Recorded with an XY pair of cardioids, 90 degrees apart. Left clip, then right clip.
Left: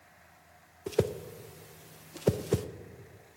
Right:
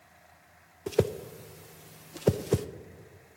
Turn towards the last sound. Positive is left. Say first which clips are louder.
# right 2 dB
turn(degrees=-15)